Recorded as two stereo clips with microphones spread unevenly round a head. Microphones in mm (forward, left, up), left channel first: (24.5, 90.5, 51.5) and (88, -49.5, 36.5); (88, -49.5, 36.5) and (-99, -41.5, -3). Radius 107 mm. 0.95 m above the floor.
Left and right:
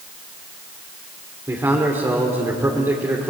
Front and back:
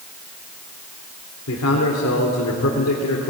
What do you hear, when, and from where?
1.5 s a man speaking: 5° left, 3 m